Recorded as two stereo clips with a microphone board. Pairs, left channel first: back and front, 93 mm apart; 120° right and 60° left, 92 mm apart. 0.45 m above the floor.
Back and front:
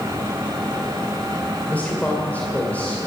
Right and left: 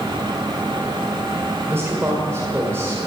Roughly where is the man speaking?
Left.